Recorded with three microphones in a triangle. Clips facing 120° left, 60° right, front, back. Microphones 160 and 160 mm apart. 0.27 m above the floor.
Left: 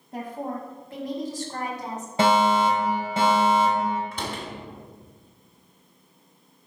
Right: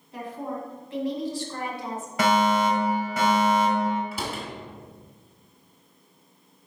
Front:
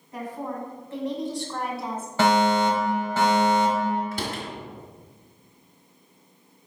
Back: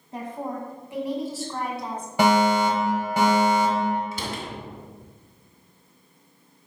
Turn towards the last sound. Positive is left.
turn(degrees=25)